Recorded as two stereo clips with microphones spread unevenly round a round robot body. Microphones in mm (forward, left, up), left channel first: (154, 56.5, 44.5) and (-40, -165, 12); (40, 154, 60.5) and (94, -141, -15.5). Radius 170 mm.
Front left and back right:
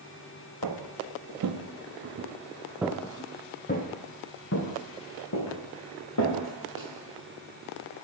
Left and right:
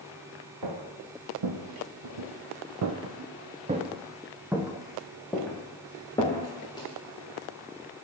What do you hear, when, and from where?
0.6 s footsteps: 110° right, 1.3 m; by 6.9 s 25° left, 2.5 m